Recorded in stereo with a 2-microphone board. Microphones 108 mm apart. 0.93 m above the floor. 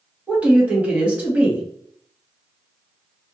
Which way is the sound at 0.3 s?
15° right (ahead or behind).